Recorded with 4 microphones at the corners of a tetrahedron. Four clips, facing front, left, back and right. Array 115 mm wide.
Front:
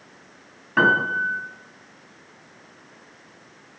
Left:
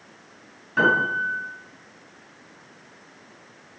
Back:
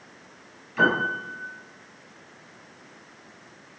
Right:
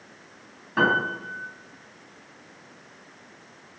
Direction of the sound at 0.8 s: 10° right.